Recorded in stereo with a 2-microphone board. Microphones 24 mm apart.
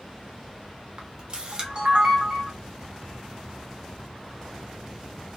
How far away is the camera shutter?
About 0.7 m.